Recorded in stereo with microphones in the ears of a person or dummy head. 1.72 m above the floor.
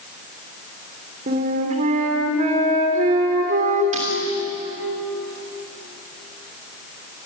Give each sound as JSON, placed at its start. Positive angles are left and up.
{"t": 1.3, "sound": "a flute", "side_deg": -45, "distance_m": 3.0}
{"t": 3.9, "sound": "breaking glass", "side_deg": -45, "distance_m": 3.0}